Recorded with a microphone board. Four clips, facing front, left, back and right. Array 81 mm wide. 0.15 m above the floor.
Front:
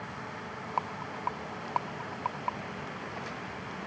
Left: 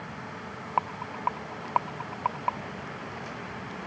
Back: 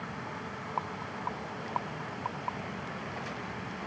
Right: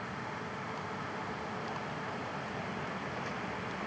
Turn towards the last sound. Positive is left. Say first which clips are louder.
# left 8 dB, front 3 dB
turn(degrees=80)